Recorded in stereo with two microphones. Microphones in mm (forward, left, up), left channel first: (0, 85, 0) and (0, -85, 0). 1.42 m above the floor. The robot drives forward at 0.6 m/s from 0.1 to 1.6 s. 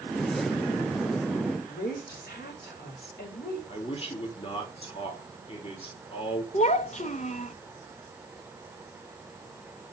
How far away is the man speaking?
About 3 m.